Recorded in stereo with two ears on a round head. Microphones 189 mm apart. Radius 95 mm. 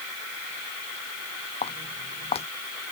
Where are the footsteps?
30° left (ahead or behind).